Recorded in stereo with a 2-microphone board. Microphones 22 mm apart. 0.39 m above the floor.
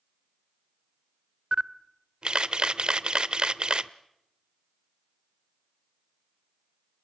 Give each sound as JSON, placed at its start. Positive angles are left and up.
{"t": 1.5, "sound": "a camera shutter", "side_deg": -40, "distance_m": 0.7}